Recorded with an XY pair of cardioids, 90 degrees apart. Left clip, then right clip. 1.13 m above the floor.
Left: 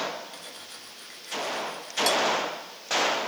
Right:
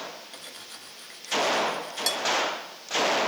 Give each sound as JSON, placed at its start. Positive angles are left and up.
{"t": 0.3, "sound": "cutlery clinking", "azimuth_deg": -15, "distance_m": 1.3}